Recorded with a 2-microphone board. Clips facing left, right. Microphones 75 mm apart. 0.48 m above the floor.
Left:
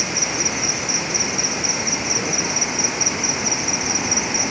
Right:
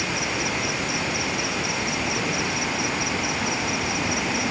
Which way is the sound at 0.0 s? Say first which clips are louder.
Left 1 dB; 15° left (ahead or behind).